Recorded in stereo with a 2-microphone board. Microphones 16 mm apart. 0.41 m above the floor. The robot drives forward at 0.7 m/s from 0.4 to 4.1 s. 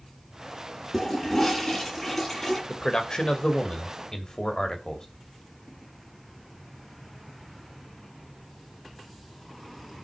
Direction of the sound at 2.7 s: 50° left (ahead or behind).